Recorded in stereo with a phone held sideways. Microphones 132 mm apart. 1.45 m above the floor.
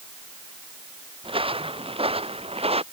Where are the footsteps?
40° right (ahead or behind); by 2.8 s 45° right (ahead or behind).